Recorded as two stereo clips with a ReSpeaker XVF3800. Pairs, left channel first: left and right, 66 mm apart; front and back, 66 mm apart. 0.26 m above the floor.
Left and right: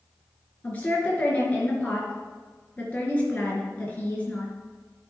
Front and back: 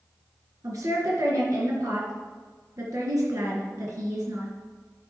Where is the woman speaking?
155° left, 3.5 m.